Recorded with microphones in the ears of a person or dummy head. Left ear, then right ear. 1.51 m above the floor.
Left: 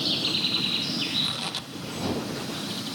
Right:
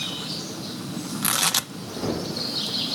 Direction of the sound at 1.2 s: 65° right (ahead or behind).